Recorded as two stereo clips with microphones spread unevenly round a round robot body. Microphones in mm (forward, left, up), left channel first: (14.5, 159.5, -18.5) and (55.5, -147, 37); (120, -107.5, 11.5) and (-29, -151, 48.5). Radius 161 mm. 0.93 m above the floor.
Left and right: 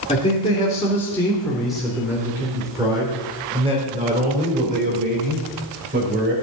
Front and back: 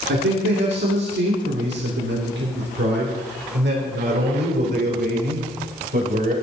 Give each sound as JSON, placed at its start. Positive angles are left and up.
{"t": 0.1, "sound": "a man speaking", "azimuth_deg": 170, "distance_m": 3.0}